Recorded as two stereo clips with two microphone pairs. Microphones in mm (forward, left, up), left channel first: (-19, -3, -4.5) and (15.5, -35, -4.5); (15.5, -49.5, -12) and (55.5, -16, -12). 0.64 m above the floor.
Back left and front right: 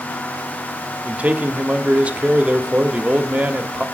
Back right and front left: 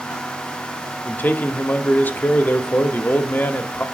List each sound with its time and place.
1.1 s a man speaking: 90° right, 1.1 m